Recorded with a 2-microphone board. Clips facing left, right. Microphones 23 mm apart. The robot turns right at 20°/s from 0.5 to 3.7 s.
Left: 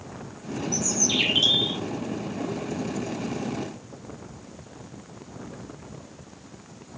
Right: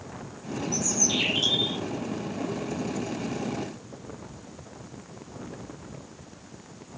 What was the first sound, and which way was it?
A bird, 20° left (ahead or behind).